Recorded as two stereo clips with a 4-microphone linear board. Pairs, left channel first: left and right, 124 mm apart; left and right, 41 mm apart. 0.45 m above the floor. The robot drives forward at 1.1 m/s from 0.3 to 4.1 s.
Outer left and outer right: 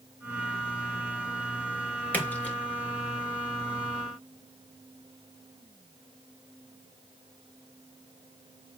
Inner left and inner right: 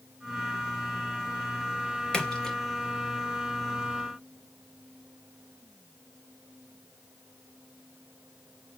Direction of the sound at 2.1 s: 15° left (ahead or behind).